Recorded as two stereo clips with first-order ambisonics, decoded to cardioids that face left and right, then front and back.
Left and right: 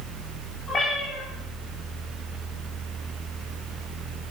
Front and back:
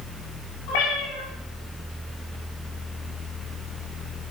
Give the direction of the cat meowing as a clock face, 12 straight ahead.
11 o'clock.